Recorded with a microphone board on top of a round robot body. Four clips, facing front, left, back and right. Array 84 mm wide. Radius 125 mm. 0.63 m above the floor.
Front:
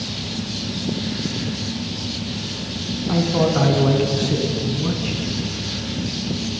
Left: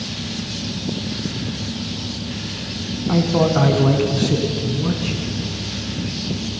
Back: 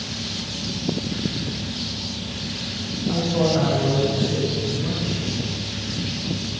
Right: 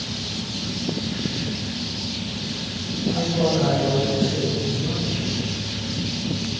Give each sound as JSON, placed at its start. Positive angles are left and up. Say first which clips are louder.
{"t": 3.1, "sound": "a man speaking", "louder": "left 5 dB, front 2 dB", "azimuth_deg": 65, "distance_m": 6.0}